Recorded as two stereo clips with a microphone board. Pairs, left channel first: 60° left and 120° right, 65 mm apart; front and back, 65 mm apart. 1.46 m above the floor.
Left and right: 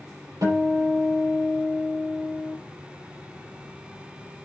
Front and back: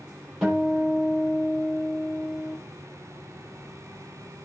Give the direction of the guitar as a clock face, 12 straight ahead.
3 o'clock.